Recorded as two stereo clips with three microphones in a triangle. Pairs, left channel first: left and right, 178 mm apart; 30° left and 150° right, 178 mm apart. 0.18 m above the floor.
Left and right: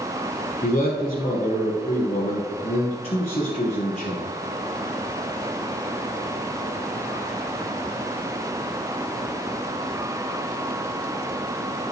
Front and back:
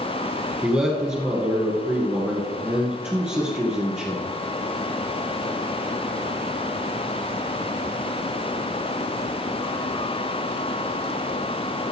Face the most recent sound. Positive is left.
turn(degrees=130)